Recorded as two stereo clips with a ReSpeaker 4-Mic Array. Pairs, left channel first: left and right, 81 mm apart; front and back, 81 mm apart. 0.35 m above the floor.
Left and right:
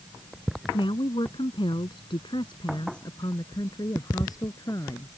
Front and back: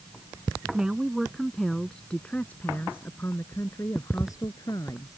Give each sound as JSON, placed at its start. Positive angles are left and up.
{"t": 0.7, "sound": "a woman speaking", "azimuth_deg": 100}